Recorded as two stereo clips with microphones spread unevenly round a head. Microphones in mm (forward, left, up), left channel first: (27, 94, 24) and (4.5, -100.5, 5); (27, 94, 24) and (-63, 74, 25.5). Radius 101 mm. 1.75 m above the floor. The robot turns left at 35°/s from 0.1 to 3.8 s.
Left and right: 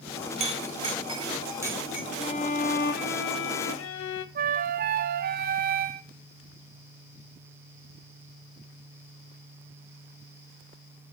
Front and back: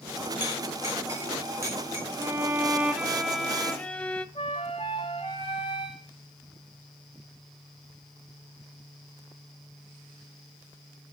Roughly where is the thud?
I don't hear a thud.